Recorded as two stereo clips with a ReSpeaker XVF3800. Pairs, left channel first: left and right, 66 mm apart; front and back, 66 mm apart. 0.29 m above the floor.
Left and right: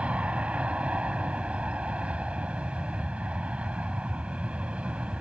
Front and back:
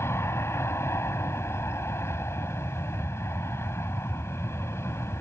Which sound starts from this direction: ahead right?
An aircraft, at 0.0 s.